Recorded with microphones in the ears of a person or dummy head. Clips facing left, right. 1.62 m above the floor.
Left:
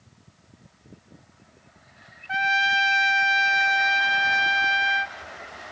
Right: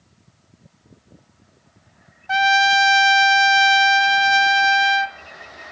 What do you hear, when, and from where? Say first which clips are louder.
2.3 s a trumpet: right 9 dB; 65° right (ahead or behind), 0.7 m